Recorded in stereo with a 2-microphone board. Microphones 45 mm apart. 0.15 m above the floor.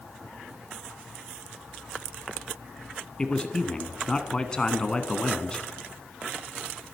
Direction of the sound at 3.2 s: 20° left (ahead or behind).